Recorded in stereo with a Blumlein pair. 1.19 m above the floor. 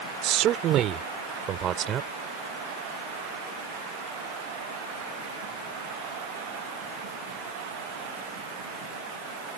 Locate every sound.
0.2 s a man speaking: 35° right; by 2.1 s 30° right